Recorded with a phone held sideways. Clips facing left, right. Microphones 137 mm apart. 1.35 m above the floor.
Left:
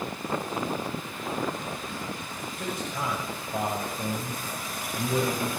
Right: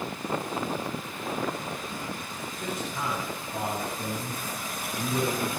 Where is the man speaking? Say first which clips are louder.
Left 1 dB; 60° left (ahead or behind), 8.5 m; by 5.6 s 80° left, 8 m.